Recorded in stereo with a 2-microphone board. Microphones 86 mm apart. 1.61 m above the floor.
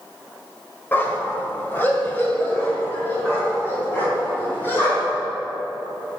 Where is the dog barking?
25° left (ahead or behind), 1.6 m.